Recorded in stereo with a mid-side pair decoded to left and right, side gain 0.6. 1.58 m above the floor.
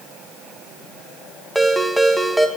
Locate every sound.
1.6 s a ringtone: straight ahead, 1.5 m